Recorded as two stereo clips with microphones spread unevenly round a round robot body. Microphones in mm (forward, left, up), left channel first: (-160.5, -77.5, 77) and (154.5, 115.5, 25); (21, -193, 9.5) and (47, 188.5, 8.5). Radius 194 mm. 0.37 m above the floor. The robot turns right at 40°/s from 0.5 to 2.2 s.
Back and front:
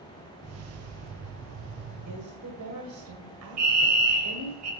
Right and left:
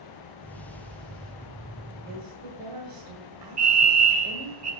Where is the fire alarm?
50° left, 3 m.